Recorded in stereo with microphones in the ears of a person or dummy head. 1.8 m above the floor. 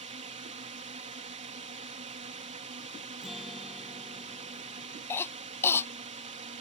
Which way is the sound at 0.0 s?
35° right (ahead or behind).